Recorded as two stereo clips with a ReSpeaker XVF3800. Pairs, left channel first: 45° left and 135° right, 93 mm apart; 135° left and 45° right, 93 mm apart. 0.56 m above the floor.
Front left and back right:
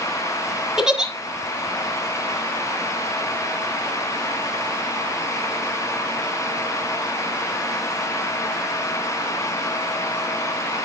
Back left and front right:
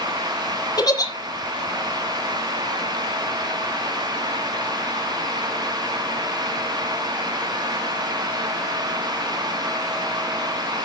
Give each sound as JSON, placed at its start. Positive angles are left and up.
{"t": 0.8, "sound": "a giggle", "azimuth_deg": 145, "distance_m": 1.3}